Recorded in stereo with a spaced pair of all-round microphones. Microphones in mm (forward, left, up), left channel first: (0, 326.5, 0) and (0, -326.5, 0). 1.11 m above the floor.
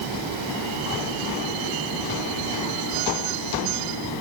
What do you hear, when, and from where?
Only background noise.